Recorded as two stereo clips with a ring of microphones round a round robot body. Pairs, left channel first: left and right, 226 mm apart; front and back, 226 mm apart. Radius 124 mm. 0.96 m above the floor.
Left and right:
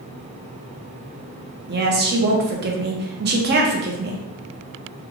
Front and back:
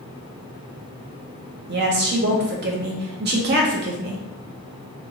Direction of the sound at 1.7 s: 135° right.